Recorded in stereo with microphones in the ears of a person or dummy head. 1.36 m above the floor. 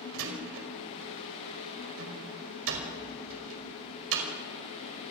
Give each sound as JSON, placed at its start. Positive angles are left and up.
{"t": 0.1, "sound": "a door slam", "side_deg": -75, "distance_m": 5.0}